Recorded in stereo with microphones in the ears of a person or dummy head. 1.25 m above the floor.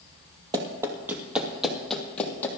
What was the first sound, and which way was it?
Running footsteps, 25° right (ahead or behind).